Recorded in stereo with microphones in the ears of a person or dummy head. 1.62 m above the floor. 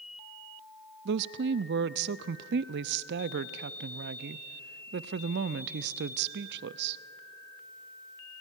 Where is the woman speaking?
55° right (ahead or behind), 0.5 m.